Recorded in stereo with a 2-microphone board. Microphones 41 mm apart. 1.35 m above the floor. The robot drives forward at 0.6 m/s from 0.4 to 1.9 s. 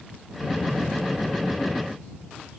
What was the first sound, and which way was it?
Only background noise.